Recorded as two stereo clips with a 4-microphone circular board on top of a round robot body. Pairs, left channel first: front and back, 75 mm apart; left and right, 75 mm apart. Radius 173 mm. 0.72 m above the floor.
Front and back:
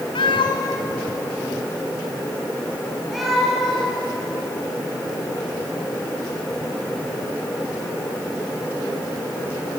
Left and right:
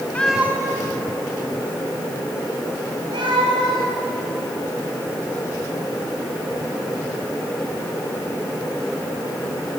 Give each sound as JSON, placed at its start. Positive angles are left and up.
{"t": 0.1, "sound": "a cat meowing", "azimuth_deg": 20, "distance_m": 0.8}